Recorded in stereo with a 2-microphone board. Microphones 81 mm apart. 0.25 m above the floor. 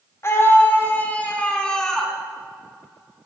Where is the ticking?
I don't hear ticking.